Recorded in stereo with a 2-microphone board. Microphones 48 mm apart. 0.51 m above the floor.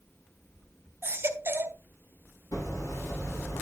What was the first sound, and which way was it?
A baby crying, 50° right (ahead or behind).